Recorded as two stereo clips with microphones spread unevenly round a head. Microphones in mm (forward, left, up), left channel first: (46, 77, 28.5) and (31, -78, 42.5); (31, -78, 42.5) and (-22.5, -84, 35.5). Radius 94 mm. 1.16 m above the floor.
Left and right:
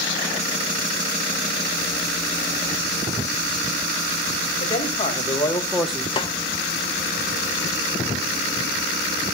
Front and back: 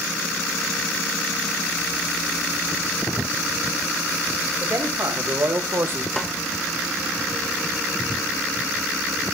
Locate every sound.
4.6 s a man speaking: 140° left, 2.5 m; by 6.1 s 175° right, 1.0 m
6.2 s a snare drum: 100° left, 0.5 m